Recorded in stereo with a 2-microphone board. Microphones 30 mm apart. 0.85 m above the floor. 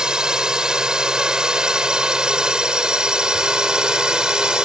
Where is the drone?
25° right (ahead or behind).